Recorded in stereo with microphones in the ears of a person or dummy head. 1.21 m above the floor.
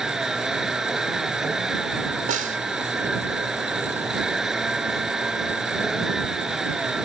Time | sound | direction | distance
0.0 | a vehicle | centre (ahead or behind) | ?
2.3 | a snare drum | 45° right (ahead or behind) | ?